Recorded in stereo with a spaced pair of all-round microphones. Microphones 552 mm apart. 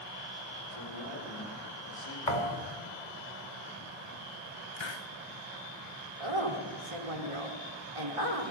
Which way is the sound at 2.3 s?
70° left (ahead or behind).